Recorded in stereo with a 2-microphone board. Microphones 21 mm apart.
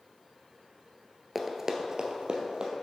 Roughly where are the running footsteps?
Centre.